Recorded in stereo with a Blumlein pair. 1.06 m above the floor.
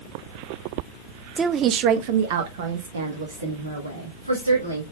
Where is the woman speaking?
15° right, 0.6 m; by 4.8 s 75° right, 2.5 m.